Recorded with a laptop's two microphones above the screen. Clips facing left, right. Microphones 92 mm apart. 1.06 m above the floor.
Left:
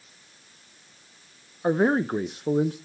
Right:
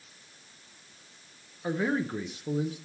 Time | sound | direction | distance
1.6 | a man speaking | 45° left (ahead or behind) | 0.5 m